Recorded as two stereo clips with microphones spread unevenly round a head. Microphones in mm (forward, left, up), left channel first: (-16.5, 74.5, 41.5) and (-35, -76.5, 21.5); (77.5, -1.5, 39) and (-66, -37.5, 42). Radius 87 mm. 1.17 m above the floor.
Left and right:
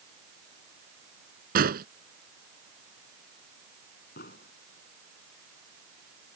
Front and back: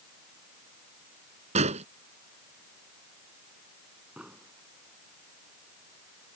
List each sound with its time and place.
1.6 s an explosion: 120° right
4.2 s an explosion: 110° left